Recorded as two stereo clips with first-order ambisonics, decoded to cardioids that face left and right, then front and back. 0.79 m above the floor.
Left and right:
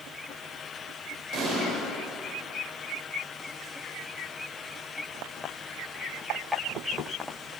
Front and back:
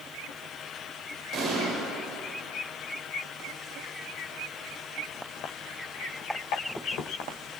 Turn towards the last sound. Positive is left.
turn(degrees=-130)